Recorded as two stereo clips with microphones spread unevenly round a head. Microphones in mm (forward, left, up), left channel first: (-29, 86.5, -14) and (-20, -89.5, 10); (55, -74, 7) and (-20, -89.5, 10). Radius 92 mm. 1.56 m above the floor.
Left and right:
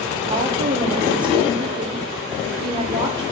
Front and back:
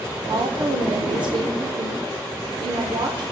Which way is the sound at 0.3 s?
155° right.